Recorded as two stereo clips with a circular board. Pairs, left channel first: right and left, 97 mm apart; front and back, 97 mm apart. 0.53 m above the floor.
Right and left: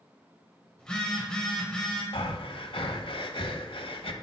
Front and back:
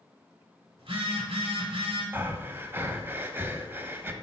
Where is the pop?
No pop in this recording.